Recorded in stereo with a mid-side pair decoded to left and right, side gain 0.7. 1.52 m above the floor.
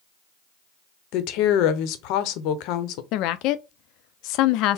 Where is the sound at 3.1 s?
60° left, 0.5 m.